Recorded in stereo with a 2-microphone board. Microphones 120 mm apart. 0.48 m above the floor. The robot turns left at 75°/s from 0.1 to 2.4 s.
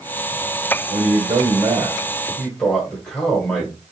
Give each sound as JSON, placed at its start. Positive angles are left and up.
{"t": 0.9, "sound": "a man speaking", "azimuth_deg": -75, "distance_m": 1.3}